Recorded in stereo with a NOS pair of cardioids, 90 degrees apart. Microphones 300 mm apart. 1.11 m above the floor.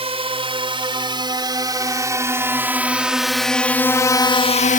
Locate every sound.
0.0 s a drone: 20° right; by 4.8 s 25° left